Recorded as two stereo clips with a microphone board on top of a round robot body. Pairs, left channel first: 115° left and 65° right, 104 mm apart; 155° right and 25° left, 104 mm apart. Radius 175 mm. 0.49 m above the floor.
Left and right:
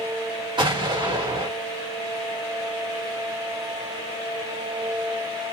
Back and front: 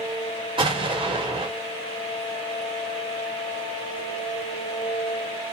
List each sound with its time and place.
0.6 s an explosion: 20° right, 1.0 m